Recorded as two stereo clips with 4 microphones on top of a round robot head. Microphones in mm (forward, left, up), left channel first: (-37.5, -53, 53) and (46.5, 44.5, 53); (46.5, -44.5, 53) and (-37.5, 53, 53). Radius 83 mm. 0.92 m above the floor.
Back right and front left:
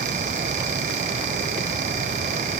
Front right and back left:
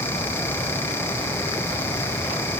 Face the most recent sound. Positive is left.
No sound to turn to.